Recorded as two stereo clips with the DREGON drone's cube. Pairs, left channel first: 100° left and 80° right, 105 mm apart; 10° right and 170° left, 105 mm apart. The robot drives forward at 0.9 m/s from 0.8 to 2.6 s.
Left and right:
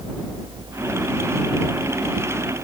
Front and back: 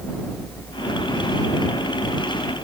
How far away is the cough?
I don't hear a cough.